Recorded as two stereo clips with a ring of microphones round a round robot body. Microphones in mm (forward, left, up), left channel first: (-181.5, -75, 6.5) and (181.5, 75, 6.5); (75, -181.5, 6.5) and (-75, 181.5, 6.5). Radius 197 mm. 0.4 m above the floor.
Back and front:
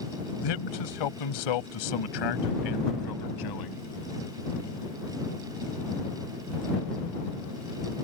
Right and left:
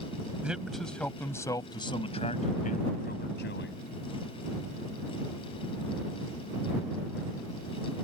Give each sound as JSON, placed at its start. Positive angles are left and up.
{"t": 0.4, "sound": "a man speaking", "azimuth_deg": -160}